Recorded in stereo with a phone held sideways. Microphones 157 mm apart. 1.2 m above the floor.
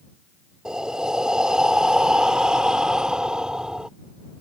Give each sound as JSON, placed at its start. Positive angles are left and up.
{"t": 0.7, "sound": "breathing", "side_deg": -5}